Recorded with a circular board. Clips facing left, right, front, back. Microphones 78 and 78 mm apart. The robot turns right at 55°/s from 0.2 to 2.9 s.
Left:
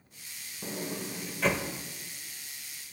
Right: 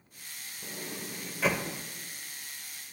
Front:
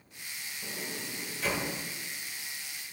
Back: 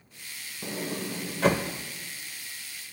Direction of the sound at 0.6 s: 140° left.